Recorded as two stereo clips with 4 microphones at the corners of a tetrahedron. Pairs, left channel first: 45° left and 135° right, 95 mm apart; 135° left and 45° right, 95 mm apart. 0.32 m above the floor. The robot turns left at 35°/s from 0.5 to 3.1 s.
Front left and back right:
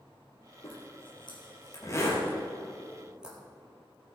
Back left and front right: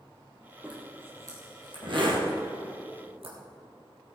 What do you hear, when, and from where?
0.6 s a zipper: 30° left, 3.5 m; by 3.4 s 55° right, 3.5 m